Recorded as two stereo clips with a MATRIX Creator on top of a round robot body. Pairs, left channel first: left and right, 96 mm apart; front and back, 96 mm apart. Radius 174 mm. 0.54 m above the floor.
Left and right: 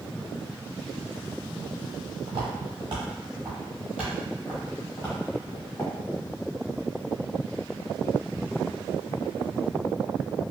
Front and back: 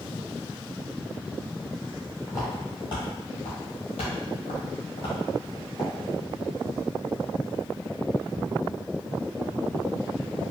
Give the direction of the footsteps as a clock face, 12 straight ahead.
2 o'clock.